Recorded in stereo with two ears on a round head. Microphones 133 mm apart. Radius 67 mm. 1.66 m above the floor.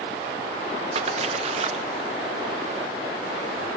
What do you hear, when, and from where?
0.9 s a splash: 45° right (ahead or behind)